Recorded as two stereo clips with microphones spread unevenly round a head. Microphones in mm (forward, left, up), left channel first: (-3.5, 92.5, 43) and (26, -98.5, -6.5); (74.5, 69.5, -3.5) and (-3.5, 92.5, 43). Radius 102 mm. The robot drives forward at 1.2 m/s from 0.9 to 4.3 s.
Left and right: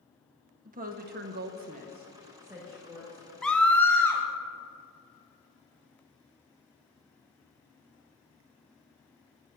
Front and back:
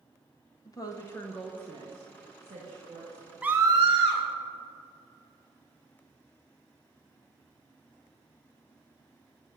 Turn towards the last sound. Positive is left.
turn(degrees=-175)